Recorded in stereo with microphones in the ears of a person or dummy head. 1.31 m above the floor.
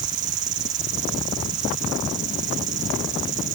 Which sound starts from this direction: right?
An insect, at 0.0 s.